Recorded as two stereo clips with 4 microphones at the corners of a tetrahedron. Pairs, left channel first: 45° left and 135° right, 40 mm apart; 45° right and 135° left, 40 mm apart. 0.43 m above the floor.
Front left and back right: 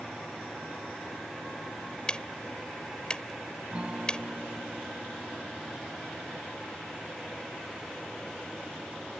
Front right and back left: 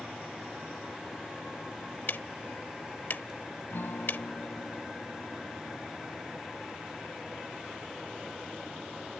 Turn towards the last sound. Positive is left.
turn(degrees=-75)